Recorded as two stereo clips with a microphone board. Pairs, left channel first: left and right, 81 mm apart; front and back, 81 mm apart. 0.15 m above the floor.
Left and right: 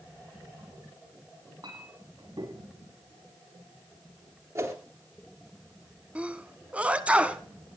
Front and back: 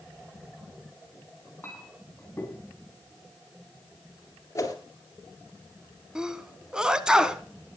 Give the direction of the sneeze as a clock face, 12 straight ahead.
4 o'clock.